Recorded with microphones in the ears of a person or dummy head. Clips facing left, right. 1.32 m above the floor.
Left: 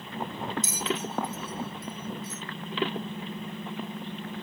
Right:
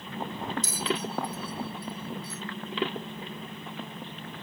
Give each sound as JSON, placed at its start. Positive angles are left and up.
{"t": 0.6, "sound": "a bell", "side_deg": 15}